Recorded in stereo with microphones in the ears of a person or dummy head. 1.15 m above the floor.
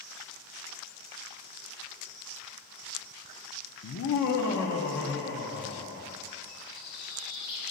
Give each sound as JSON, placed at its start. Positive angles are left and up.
{"t": 3.8, "sound": "laughter", "side_deg": 55, "distance_m": 0.5}
{"t": 6.5, "sound": "a bird", "side_deg": 70, "distance_m": 3.0}